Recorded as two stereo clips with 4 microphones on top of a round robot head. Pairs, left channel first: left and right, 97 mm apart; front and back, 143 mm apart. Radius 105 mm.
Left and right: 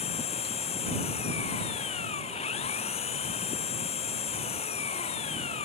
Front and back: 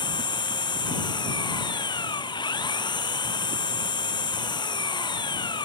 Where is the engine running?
60° left.